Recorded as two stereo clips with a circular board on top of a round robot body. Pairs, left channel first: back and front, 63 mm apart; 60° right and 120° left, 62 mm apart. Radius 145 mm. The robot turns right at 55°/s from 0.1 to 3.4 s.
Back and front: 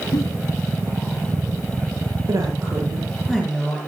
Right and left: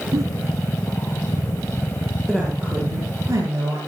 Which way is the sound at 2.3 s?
30° left.